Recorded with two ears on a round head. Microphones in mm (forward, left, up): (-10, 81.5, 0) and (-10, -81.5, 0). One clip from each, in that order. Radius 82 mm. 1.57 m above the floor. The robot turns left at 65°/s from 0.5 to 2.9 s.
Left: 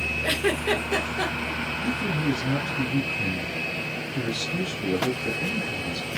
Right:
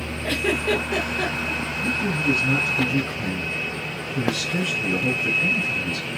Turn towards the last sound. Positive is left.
turn(degrees=-45)